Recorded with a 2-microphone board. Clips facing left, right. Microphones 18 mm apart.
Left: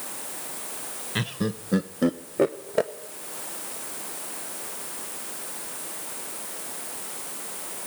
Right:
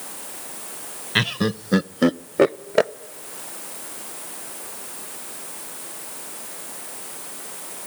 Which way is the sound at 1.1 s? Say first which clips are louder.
Right 8 dB; 45° right (ahead or behind).